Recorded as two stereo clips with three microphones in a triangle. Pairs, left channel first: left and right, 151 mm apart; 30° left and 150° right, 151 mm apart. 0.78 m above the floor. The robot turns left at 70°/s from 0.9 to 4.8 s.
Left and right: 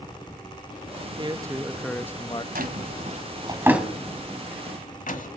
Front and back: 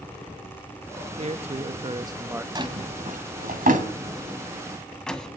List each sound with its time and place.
1.2 s a man speaking: 135° right, 0.6 m; by 2.5 s 135° left, 0.6 m
2.5 s a drawer: 85° right, 1.4 m; by 5.3 s 115° left, 1.4 m